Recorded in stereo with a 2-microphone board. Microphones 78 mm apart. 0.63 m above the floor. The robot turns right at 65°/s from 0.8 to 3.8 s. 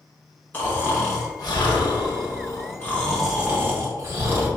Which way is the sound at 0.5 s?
25° left.